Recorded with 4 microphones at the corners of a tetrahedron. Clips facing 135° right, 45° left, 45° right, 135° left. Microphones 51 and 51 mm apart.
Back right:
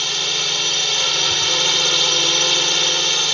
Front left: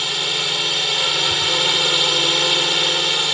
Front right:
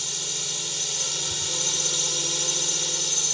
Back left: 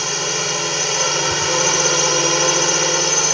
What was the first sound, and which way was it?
A drone, 130° left.